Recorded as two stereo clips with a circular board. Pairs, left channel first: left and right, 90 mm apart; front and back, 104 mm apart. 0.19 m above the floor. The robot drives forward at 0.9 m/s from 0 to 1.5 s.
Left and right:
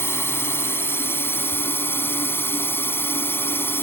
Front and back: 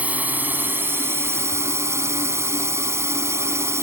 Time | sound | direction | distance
0.0 | a drone | 120° left | ?